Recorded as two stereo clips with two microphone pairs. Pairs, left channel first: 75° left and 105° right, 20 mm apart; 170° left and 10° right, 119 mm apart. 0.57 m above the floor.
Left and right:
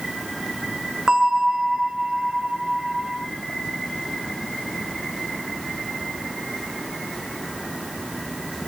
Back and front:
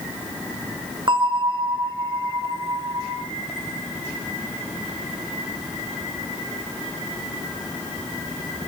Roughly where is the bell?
Ahead right.